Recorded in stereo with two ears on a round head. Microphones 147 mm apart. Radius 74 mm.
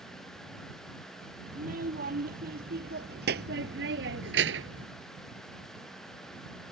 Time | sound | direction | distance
1.5 | a child speaking | 50° right (ahead or behind) | ?